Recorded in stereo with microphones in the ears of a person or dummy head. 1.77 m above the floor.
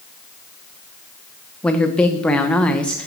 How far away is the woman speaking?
About 0.8 m.